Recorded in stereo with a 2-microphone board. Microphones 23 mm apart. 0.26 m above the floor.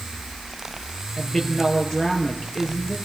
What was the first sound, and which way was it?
A woman speaking, 20° left (ahead or behind).